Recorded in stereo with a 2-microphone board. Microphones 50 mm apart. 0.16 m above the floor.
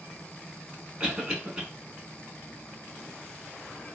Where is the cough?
20° right (ahead or behind), 1.3 m.